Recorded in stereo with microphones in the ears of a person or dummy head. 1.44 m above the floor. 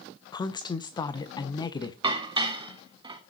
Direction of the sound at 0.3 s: 15° left (ahead or behind).